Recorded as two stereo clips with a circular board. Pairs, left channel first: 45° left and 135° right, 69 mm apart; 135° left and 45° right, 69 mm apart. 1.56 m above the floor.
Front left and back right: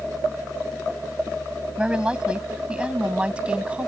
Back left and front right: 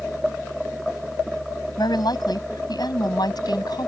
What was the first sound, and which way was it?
A woman speaking, 150° left.